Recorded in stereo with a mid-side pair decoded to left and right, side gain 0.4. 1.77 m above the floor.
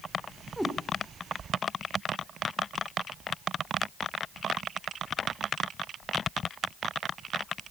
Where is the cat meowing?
Straight ahead, 3.5 m.